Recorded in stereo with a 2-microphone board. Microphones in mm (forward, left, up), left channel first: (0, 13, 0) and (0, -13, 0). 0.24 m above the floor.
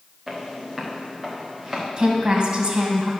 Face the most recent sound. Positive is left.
turn(degrees=-45)  # may be behind; listen again after turning